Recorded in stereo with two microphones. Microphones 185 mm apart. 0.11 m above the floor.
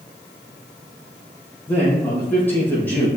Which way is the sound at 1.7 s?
10° left (ahead or behind).